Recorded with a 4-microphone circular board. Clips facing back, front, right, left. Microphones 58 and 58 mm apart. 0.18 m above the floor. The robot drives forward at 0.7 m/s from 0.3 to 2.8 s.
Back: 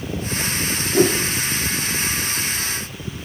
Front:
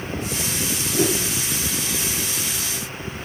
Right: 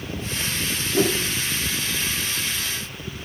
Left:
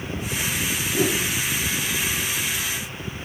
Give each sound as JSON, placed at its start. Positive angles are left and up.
{"t": 0.9, "sound": "a whoosh", "azimuth_deg": -150, "distance_m": 8.0}